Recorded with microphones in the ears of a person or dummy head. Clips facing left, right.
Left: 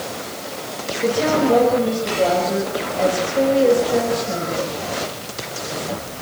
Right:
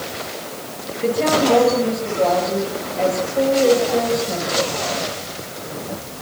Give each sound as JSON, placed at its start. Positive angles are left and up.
{"t": 1.0, "sound": "a woman speaking", "side_deg": 10, "distance_m": 6.5}